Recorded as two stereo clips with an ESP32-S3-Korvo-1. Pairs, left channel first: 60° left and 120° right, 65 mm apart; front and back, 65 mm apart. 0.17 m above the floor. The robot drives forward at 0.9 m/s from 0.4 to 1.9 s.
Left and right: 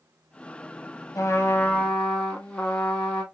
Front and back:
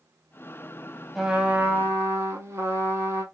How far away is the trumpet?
About 0.7 m.